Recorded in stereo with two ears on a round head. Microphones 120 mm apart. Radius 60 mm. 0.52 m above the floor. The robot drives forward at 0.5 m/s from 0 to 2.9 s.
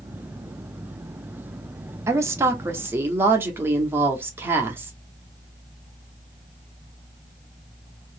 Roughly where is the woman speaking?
Centre.